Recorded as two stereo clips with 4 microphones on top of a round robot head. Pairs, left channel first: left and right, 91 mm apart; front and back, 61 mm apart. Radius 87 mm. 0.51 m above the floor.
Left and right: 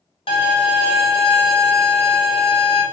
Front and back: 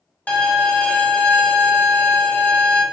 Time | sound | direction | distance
0.3 | a violin | 65° left | 1.0 m